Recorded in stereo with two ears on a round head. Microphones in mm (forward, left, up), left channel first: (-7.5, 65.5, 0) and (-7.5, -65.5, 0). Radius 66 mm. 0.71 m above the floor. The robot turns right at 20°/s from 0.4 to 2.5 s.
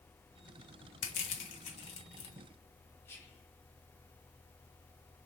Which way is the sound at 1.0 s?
65° left (ahead or behind).